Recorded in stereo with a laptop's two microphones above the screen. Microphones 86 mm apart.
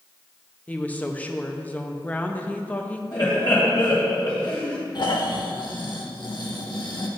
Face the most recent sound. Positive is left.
turn(degrees=60)  # may be behind; listen again after turning